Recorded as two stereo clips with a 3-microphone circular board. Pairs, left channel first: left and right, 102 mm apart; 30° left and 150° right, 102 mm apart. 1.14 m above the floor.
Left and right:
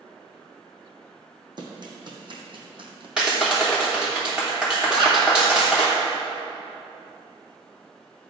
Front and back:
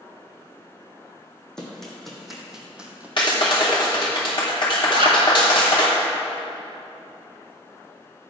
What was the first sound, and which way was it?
Running footsteps, 50° right.